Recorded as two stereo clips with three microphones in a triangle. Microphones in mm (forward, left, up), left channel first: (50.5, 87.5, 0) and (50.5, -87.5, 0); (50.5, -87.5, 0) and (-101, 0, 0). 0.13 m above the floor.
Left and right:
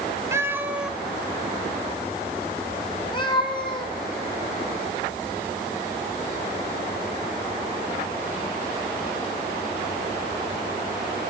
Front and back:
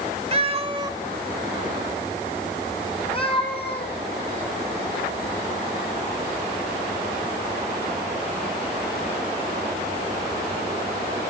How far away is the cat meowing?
About 0.9 m.